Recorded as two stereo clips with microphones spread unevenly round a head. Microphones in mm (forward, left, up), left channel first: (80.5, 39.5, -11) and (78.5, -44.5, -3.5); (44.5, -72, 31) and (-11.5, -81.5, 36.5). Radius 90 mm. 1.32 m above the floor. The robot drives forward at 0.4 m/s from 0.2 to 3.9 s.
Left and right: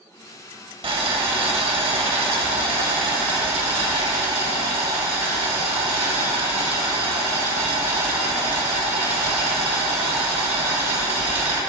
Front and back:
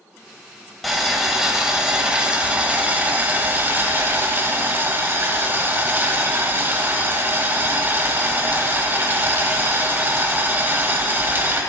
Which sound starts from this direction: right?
Boiling, at 0.8 s.